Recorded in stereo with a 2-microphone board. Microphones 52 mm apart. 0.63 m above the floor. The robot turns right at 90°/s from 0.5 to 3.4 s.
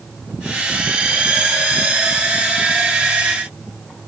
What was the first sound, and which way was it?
Only background noise.